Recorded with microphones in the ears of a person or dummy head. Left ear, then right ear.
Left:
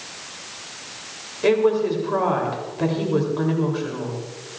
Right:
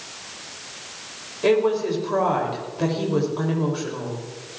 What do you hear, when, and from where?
1.4 s a woman speaking: centre (ahead or behind), 3 m